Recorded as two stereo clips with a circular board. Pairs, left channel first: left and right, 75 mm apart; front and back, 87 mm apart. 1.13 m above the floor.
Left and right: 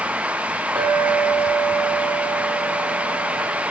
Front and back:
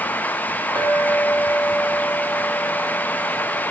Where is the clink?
130° right, 5 m.